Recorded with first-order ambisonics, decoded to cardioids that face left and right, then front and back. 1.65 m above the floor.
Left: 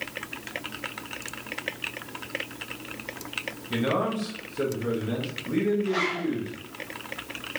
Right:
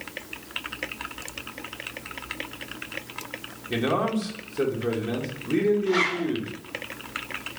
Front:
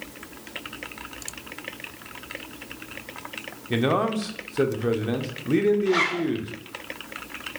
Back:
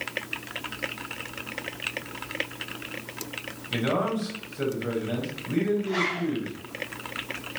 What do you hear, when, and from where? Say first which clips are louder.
3.7 s a man speaking: right 2 dB, front 3 dB; 10° right, 1.0 m
5.9 s a zipper: right 3 dB, front 4 dB; 20° right, 0.9 m